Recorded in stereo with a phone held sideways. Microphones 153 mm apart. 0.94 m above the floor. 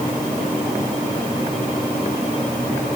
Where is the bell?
No bell in this recording.